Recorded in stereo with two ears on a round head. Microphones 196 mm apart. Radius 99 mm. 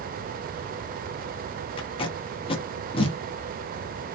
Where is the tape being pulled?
25° left (ahead or behind), 0.7 m.